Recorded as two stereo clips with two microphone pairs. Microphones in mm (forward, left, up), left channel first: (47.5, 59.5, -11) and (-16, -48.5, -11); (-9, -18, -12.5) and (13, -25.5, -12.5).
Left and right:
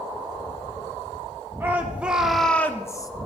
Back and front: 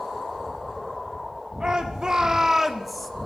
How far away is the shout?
About 1.6 m.